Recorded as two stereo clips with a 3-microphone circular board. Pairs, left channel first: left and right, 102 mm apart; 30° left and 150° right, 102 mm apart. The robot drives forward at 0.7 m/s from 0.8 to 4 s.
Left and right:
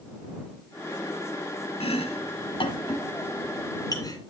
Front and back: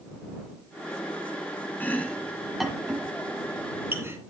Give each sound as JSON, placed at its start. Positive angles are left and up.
{"t": 1.8, "sound": "chopping", "azimuth_deg": 100, "distance_m": 1.4}